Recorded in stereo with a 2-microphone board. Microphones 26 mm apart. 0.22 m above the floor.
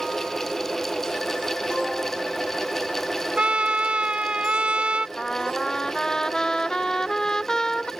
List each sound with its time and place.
3.4 s a trumpet: 50° right (ahead or behind)
5.2 s a trumpet: 25° left (ahead or behind)